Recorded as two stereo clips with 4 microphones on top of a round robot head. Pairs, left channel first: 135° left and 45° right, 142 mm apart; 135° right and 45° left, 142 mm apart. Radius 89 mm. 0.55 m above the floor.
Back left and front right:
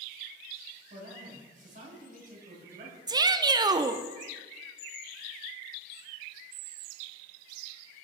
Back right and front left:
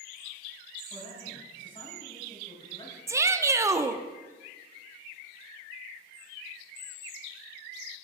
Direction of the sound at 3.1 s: 10° right.